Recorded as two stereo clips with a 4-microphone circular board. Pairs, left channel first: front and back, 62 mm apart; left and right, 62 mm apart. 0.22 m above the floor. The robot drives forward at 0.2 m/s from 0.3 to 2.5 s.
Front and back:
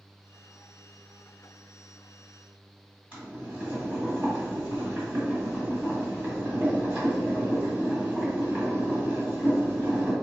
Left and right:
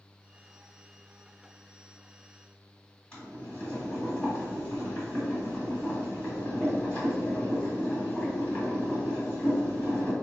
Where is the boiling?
150° left, 1.7 m.